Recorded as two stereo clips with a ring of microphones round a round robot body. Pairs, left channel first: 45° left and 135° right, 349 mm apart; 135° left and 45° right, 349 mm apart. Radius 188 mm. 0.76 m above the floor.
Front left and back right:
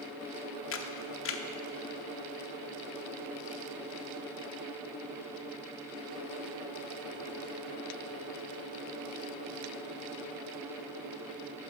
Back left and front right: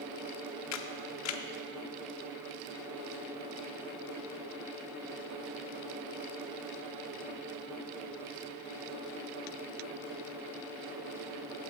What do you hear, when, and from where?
0.7 s a camera shutter: 95° left, 0.6 m